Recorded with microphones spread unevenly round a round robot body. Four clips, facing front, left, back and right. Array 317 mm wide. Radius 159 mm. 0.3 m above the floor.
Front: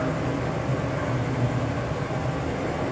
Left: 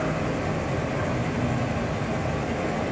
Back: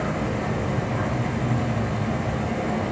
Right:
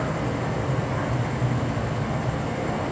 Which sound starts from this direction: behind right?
An insect, at 0.0 s.